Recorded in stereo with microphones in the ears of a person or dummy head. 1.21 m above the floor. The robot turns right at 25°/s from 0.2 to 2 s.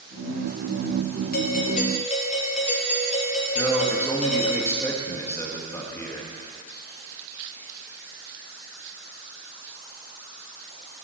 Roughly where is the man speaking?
Centre.